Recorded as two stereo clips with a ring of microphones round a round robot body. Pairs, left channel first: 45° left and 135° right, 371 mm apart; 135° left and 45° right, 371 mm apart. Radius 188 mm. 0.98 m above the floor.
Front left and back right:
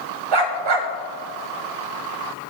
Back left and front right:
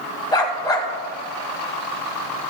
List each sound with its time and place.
0.3 s a dog barking: 145° right, 1.3 m